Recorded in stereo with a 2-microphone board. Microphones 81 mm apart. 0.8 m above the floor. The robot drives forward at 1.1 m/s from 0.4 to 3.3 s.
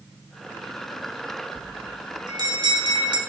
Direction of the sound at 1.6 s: 50° right (ahead or behind).